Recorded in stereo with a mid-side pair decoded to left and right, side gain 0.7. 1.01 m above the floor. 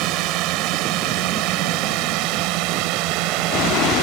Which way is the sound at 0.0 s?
65° right.